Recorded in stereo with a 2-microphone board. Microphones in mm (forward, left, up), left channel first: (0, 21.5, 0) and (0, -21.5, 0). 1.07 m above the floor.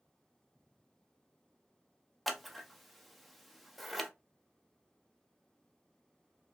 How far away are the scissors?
About 0.5 m.